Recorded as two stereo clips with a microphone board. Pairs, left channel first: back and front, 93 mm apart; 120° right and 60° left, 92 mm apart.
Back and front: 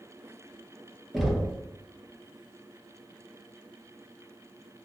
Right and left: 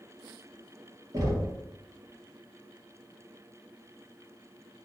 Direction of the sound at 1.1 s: 90° left.